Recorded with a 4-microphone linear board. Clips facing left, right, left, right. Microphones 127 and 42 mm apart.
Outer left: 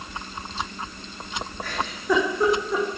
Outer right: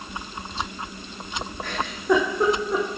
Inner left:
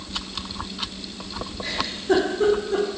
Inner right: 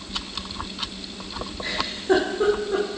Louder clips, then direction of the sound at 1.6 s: Outer right 2 dB, even; 20° right (ahead or behind).